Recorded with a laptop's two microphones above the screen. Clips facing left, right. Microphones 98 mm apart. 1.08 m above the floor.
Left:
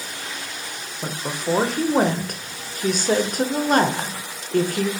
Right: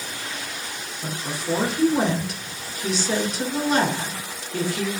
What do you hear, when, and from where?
1.0 s a woman speaking: 50° left (ahead or behind), 0.6 m